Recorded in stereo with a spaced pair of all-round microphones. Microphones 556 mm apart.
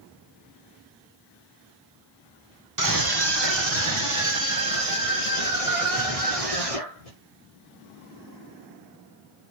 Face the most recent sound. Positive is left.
turn(degrees=-85)